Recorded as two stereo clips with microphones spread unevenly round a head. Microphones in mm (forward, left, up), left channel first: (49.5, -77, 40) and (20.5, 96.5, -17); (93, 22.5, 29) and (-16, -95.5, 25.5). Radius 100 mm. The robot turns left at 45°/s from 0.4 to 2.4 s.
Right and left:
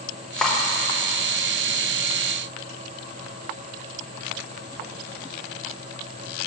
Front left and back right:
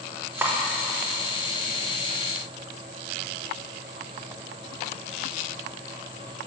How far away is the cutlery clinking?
About 0.6 m.